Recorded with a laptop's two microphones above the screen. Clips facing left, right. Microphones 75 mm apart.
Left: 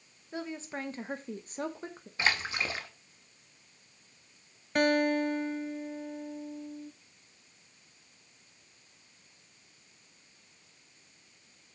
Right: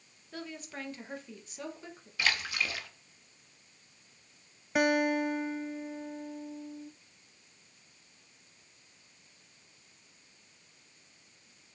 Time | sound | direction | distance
0.3 | a woman speaking | 20° left (ahead or behind) | 1.0 m
2.2 | a splash | 30° left (ahead or behind) | 0.7 m
4.8 | a guitar | 5° right (ahead or behind) | 0.5 m